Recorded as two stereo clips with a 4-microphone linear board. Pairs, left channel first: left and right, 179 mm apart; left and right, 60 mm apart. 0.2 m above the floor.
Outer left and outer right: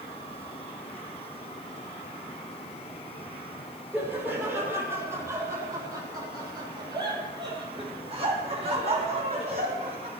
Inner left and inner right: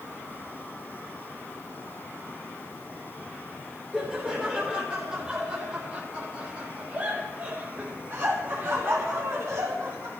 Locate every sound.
3.9 s laughter: 10° right (ahead or behind), 8.5 m; by 10.1 s 45° right (ahead or behind), 8 m